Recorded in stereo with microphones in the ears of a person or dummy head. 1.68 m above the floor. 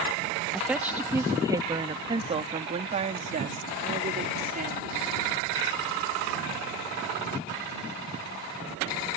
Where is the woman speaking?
Centre (ahead or behind); by 5.0 s 45° right (ahead or behind).